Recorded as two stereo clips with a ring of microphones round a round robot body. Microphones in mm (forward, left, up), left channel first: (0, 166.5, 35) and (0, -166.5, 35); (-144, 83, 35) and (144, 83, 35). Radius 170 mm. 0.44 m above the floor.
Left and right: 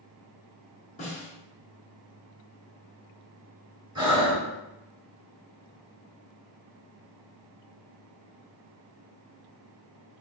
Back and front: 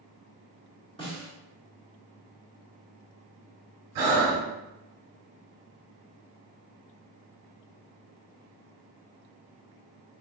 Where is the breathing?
15° right, 0.8 m.